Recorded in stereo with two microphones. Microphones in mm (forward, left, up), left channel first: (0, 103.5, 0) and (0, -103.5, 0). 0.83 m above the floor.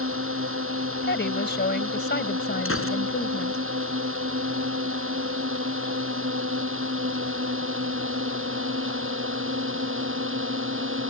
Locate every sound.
0.0 s a drone: 85° right; by 11.1 s 75° right (ahead or behind)
1.0 s a woman speaking: 55° left (ahead or behind)
2.6 s a gunshot: 85° left